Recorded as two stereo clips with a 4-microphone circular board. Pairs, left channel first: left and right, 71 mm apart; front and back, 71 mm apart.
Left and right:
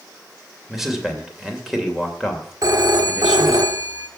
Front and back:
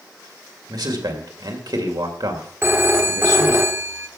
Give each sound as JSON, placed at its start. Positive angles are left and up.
{"t": 0.7, "sound": "a man speaking", "azimuth_deg": -175, "distance_m": 2.5}
{"t": 2.6, "sound": "a phone ringing", "azimuth_deg": -125, "distance_m": 1.3}